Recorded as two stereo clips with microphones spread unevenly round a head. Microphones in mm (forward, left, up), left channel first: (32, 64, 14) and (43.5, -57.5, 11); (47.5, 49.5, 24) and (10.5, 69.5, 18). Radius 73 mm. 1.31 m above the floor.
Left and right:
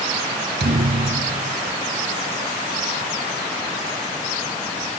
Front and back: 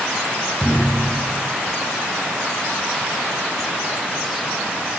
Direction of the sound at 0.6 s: 110° right.